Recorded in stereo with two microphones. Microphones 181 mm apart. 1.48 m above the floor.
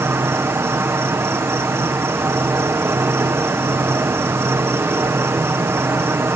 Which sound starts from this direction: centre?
An insect, at 0.0 s.